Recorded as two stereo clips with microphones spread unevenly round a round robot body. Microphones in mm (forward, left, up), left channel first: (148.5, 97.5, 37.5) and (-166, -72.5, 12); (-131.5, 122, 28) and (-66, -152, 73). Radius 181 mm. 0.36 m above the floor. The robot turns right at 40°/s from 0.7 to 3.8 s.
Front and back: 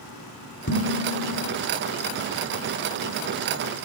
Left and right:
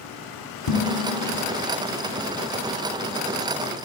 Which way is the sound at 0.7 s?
90° left.